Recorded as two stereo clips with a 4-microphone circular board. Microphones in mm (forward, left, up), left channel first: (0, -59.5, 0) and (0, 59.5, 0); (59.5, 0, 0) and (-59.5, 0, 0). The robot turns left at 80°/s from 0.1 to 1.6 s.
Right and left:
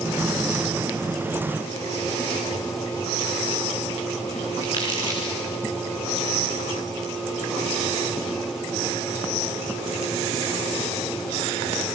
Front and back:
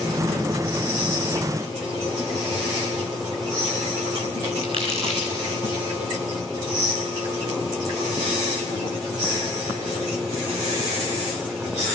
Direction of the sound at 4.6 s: 140° right.